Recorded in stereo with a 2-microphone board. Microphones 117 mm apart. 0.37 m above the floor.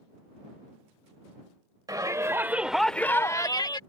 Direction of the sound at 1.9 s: 35° right (ahead or behind).